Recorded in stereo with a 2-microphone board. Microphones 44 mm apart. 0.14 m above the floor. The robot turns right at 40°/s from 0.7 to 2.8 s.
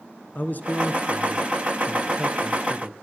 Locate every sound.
0.3 s a man speaking: 110° left, 2 m; by 2.9 s 165° right, 2 m